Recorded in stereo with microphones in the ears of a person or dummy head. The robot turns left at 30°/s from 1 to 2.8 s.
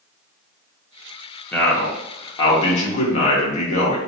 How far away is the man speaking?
About 0.8 m.